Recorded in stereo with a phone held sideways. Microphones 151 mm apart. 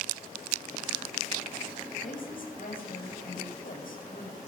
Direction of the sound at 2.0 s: 65° left (ahead or behind).